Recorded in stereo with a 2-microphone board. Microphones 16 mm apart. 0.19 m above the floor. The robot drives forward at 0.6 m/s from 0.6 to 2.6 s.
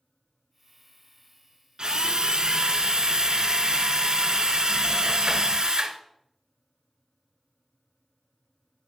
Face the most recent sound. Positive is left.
turn(degrees=-60)  # may be behind; listen again after turning